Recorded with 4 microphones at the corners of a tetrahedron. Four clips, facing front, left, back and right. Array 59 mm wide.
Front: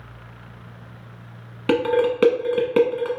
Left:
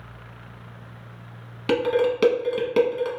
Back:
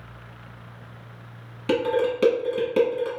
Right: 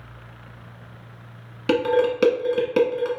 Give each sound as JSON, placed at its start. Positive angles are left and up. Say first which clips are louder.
{"t": 1.7, "sound": "dishes clattering", "louder": "right 1 dB, front 3 dB", "azimuth_deg": -10, "distance_m": 0.8}